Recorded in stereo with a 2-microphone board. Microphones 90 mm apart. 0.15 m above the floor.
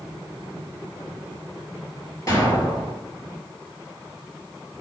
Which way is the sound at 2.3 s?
35° left (ahead or behind).